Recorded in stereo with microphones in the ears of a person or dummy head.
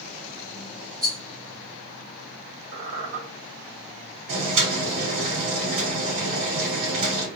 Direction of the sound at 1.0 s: 20° right (ahead or behind).